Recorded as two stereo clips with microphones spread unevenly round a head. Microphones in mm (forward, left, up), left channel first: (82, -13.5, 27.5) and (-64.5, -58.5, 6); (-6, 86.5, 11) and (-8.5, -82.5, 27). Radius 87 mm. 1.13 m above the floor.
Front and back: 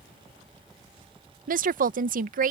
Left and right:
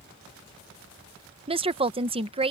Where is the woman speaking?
150° right.